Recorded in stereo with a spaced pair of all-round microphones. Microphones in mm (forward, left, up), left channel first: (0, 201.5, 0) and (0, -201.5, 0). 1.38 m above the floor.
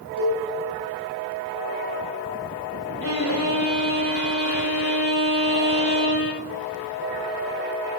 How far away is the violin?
About 4 m.